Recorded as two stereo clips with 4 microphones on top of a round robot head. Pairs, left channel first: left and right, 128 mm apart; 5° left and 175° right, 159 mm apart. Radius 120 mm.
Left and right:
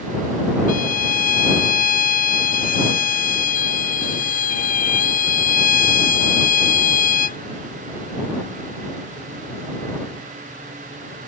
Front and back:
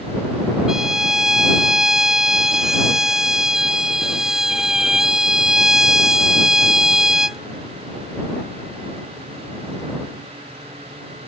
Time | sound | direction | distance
0.7 | a violin | 95° left | ?